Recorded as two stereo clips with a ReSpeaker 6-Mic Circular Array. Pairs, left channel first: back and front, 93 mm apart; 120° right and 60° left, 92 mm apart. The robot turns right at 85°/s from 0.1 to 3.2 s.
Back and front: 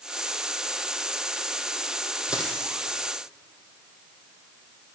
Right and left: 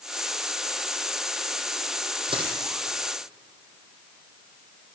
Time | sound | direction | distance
2.3 | a dropped coin | 75° left | 2 m